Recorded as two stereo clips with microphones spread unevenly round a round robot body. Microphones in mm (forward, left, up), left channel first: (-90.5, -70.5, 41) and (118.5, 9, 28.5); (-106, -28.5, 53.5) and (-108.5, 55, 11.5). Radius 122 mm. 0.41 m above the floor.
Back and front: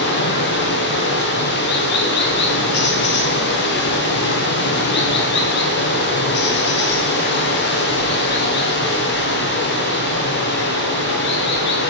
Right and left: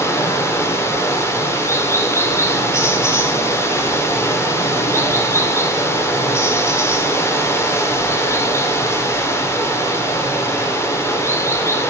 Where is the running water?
165° right, 1.0 m.